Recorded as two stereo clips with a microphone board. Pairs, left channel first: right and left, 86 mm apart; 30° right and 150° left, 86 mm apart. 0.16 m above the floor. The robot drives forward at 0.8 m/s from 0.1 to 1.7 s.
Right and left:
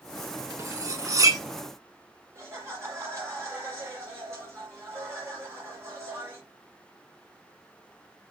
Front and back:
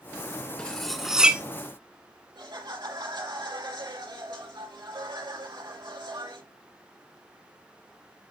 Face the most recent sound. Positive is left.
turn(degrees=140)